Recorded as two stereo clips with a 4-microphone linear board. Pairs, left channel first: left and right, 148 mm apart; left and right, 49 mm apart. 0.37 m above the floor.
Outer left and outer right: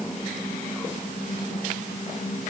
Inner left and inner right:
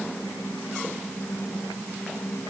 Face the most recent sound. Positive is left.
No sound to turn to.